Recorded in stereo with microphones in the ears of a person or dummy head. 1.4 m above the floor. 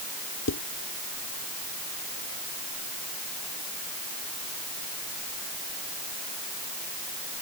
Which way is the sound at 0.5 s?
80° left.